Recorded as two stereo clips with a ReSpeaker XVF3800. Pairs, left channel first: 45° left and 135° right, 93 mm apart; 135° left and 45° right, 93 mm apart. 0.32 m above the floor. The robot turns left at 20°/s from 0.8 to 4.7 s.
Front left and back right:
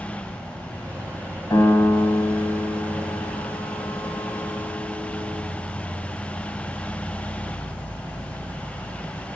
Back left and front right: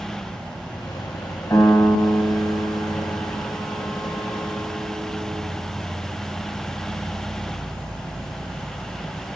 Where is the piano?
80° left, 1.0 m; by 5.4 s 20° left, 1.0 m.